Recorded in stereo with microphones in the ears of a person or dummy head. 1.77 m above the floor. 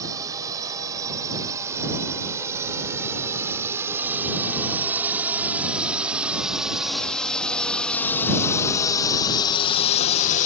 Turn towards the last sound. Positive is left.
turn(degrees=40)  # may be behind; listen again after turning